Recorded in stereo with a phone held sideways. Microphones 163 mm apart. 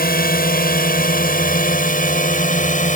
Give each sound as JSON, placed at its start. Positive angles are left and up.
{"t": 0.0, "sound": "a drone", "side_deg": 65}